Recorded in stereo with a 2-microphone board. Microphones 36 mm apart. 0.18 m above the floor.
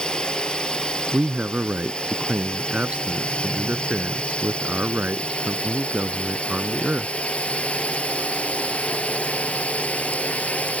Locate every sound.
0.0 s a drone: 25° left (ahead or behind); by 10.8 s 40° left (ahead or behind)
1.1 s a man speaking: 40° right (ahead or behind)